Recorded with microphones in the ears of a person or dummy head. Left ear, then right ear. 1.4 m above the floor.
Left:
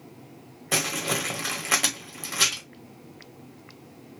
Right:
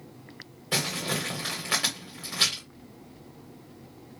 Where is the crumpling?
25° left (ahead or behind), 1.4 m.